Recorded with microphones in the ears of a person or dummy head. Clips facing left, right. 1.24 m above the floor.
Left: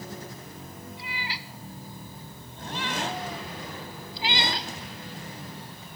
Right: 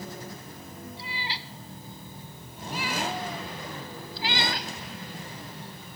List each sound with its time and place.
1.0 s a cat meowing: 35° right (ahead or behind); by 6.0 s 50° left (ahead or behind)